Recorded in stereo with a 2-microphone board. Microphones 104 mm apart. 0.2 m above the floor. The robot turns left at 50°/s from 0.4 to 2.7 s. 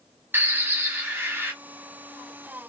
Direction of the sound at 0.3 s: 20° right (ahead or behind).